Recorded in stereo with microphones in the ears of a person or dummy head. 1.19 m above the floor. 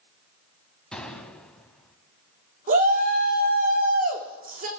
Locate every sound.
0.9 s a gunshot: 5° left (ahead or behind), 1.9 m
2.7 s a shout: 45° right (ahead or behind), 3.5 m